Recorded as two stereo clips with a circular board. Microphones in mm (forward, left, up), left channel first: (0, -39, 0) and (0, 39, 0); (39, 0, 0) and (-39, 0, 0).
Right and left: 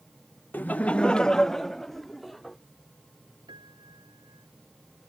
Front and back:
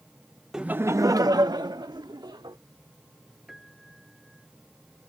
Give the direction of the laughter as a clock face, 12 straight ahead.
4 o'clock.